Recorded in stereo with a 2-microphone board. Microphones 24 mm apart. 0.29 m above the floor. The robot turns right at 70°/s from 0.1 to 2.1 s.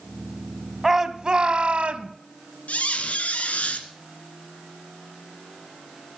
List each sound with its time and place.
0.8 s a shout: 160° right, 1.5 m; by 2.1 s 75° right, 1.5 m
2.7 s a squeak: 75° left (ahead or behind), 2.0 m